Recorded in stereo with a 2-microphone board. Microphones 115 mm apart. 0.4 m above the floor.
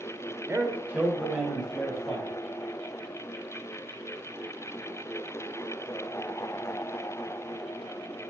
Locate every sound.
0.5 s a man speaking: 20° right (ahead or behind), 1.3 m; by 2.3 s 5° right (ahead or behind), 3 m